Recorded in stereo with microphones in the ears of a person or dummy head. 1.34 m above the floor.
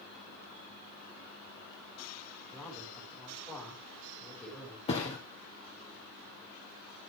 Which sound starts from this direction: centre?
A man speaking, at 2.5 s.